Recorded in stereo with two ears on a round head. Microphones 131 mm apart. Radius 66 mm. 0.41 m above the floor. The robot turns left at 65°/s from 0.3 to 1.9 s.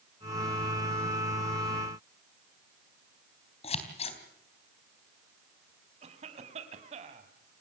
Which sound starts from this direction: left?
Scissors, at 3.6 s.